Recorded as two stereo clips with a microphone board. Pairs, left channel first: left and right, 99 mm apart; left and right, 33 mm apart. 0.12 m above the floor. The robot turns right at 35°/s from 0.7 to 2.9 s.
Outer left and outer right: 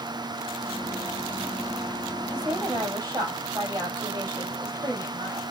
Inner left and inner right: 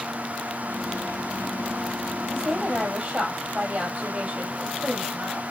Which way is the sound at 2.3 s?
15° right (ahead or behind).